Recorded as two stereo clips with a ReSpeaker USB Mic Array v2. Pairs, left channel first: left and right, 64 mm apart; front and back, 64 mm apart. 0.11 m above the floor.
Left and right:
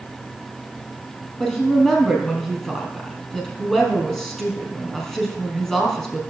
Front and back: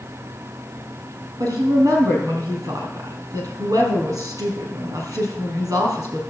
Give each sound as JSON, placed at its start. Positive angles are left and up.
{"t": 1.4, "sound": "a woman speaking", "azimuth_deg": 170, "distance_m": 3.0}